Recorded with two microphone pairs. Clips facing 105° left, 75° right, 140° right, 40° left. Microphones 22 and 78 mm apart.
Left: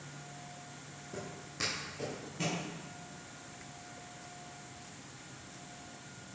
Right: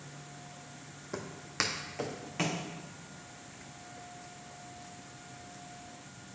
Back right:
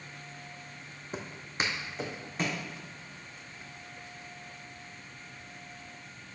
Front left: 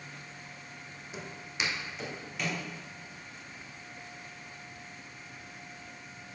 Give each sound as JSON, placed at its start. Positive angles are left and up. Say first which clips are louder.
{"t": 1.1, "sound": "footsteps", "louder": "right 7 dB, back right 3 dB", "azimuth_deg": -95, "distance_m": 1.1}